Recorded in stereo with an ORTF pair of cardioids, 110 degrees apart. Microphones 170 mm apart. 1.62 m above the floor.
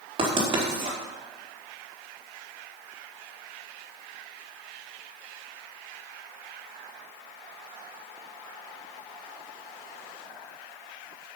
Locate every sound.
0.2 s writing: 30° right, 4.5 m